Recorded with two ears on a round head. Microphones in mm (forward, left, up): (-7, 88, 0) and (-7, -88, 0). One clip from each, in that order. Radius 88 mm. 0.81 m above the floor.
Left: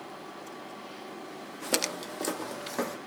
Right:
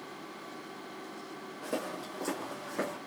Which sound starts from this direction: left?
Footsteps, at 1.6 s.